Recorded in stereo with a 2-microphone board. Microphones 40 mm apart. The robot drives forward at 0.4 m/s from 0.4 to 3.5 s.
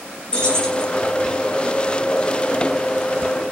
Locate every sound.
0.3 s keys jangling: 20° left (ahead or behind), 1.6 m